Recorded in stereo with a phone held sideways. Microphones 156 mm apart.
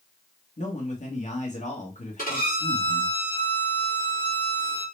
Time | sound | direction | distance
0.6 | a man speaking | 50° left (ahead or behind) | 1.0 m
2.2 | a violin | 60° left (ahead or behind) | 1.8 m